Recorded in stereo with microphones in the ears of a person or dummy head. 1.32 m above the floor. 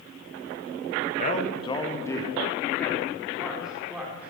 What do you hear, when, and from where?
1.2 s a man speaking: 45° left (ahead or behind), 1.6 m; by 4.3 s 10° right (ahead or behind), 4.5 m